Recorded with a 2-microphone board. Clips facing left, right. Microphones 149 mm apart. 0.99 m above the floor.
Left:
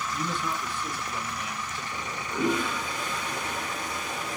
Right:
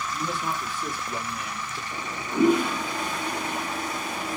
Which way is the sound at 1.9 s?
60° right (ahead or behind).